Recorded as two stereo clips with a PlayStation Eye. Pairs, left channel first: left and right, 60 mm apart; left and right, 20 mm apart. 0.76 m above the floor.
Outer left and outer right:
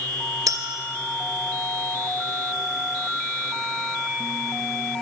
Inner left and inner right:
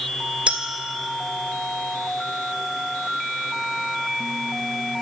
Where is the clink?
80° right, 1.5 m.